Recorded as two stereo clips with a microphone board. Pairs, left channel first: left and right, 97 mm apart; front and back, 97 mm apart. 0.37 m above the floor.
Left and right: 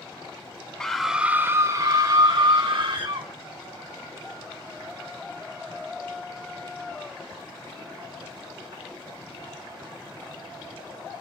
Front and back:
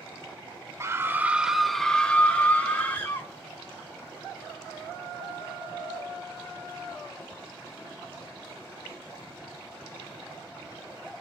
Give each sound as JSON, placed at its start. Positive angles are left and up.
{"t": 0.8, "sound": "a scream", "azimuth_deg": 170, "distance_m": 0.9}